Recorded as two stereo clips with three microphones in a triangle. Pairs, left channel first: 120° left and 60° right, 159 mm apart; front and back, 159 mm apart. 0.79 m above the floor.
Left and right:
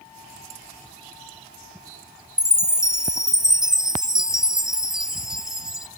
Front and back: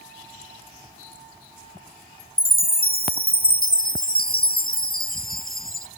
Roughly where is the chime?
Ahead left.